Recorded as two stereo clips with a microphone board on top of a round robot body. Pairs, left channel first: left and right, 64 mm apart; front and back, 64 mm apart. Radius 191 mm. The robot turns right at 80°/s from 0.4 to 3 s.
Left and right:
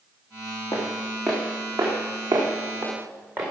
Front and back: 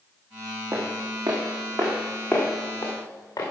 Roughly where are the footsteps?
Behind left.